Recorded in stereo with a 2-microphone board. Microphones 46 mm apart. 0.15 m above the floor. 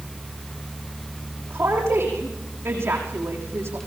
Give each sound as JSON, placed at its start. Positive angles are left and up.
{"t": 1.5, "sound": "a woman speaking", "side_deg": -75, "distance_m": 6.5}